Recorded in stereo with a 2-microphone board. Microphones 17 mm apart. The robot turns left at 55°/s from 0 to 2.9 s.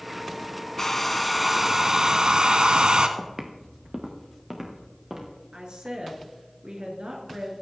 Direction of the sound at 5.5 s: 70° right (ahead or behind).